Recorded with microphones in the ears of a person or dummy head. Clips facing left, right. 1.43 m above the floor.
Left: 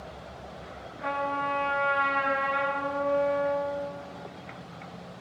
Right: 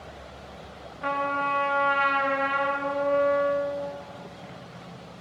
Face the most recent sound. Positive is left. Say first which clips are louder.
# right 2 dB
turn(degrees=-50)  # may be behind; listen again after turning